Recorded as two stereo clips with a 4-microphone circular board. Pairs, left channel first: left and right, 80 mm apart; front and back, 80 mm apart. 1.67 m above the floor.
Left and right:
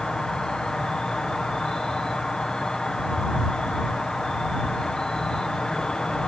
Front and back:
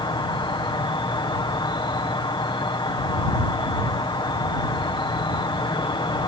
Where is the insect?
10° left.